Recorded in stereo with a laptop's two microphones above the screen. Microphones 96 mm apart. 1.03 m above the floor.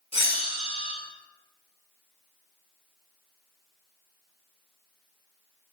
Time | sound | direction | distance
0.1 | a bell | 75° left (ahead or behind) | 2 m